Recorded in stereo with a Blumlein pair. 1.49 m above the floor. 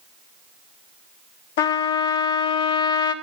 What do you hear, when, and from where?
1.6 s a trumpet: 55° left, 1.0 m